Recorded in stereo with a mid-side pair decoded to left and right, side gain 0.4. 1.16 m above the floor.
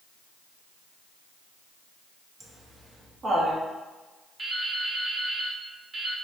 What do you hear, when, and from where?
2.4 s laughter: 50° right, 1.4 m
4.4 s dripping: 35° right, 1.2 m